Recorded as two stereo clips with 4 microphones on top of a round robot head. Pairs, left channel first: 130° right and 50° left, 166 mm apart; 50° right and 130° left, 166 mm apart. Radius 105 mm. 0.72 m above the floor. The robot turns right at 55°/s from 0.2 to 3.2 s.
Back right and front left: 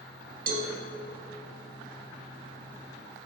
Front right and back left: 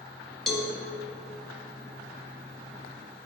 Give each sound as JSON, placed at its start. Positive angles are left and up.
{"t": 0.5, "sound": "a cowbell", "azimuth_deg": 40, "distance_m": 0.9}